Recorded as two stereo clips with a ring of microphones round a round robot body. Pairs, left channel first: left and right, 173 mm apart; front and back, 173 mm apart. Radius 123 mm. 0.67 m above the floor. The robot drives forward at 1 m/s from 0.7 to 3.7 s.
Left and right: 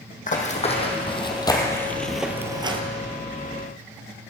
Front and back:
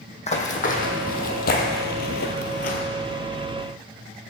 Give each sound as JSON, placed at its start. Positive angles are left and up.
{"t": 0.3, "sound": "running footsteps", "azimuth_deg": 50, "distance_m": 2.0}